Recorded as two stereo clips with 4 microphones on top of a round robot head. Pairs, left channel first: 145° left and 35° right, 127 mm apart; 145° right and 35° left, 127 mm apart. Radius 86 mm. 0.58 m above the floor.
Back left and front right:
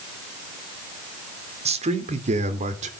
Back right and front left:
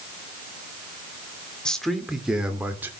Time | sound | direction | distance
1.6 | a man speaking | 60° right | 2 m